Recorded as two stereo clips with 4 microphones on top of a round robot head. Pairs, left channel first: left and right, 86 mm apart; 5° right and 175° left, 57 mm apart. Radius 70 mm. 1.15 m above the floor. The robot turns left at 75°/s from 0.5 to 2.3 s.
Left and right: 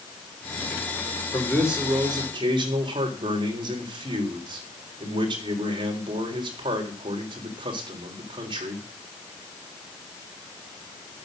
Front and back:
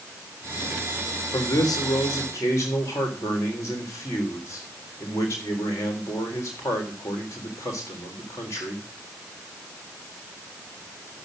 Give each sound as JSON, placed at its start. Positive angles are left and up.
{"t": 1.3, "sound": "a man speaking", "azimuth_deg": 20, "distance_m": 3.5}